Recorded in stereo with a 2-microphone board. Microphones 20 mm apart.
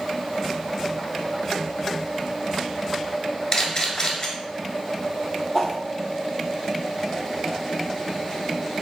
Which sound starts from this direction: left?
A camera shutter, at 3.5 s.